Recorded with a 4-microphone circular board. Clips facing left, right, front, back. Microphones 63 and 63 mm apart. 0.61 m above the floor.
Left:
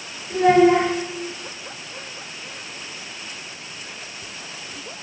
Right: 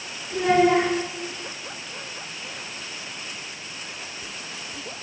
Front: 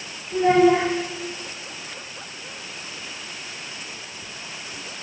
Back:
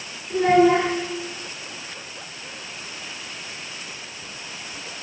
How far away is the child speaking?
About 5 m.